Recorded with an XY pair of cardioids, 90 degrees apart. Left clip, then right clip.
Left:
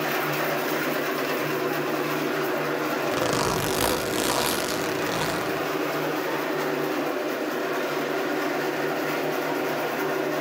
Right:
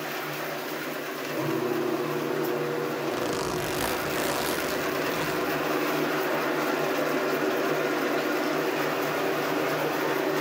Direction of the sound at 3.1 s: 50° left.